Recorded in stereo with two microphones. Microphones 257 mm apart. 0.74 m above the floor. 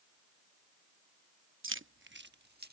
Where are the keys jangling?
50° right (ahead or behind); by 2.7 s 35° right (ahead or behind).